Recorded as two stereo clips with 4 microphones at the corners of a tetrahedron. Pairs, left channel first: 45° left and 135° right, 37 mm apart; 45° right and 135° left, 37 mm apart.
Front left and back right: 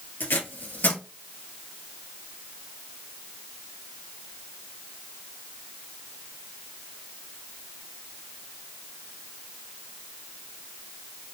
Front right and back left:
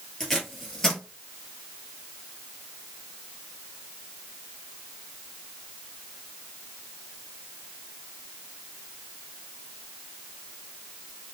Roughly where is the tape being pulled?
Ahead left.